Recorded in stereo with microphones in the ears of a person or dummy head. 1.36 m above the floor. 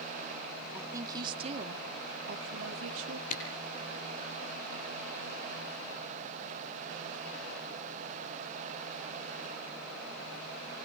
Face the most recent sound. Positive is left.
turn(degrees=45)  # may be behind; listen again after turning